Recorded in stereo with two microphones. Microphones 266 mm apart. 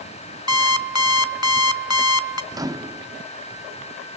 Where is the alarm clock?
80° left, 1.5 m.